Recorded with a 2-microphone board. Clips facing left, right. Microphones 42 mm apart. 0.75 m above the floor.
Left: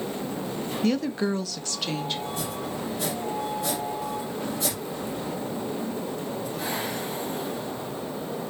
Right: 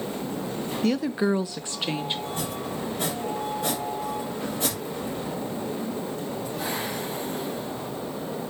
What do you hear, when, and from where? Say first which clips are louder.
0.8 s a woman speaking: right 1 dB; centre (ahead or behind), 0.5 m; by 2.2 s 20° right (ahead or behind), 1.0 m
2.3 s chopping: even; 35° right (ahead or behind), 4.5 m